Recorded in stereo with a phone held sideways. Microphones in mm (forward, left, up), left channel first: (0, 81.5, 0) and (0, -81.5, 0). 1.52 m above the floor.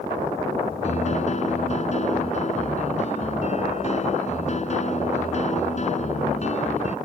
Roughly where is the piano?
Left.